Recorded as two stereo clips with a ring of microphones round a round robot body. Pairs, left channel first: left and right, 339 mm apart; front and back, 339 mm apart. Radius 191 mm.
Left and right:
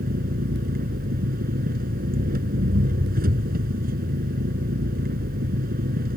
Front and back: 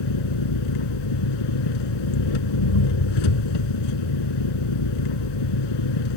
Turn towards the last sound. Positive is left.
turn(degrees=-20)